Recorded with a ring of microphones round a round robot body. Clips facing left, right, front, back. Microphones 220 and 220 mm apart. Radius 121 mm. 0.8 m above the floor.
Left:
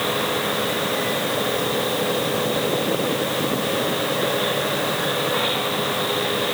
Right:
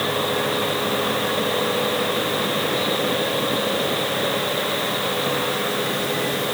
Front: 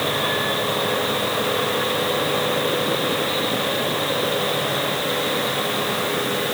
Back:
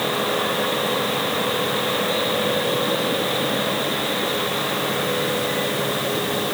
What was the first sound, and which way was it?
Only background noise.